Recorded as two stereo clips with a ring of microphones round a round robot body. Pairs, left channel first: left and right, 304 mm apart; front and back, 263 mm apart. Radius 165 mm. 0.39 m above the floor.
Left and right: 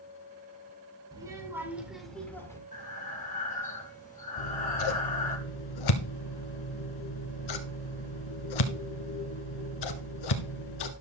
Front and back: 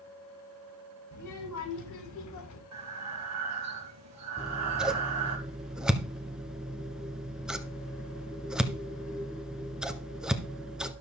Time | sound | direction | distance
1.1 | a child speaking | 15° right | 4.5 m
2.7 | breathing | 155° left | 2 m
4.4 | scissors | 95° left | 1.5 m